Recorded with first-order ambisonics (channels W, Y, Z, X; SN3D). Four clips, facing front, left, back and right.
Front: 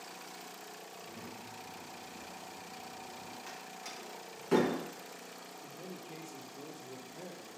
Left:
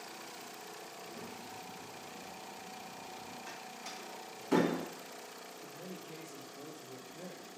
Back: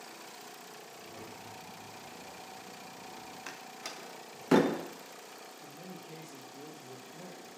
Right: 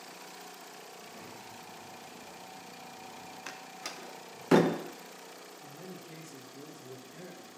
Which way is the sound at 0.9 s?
165° right.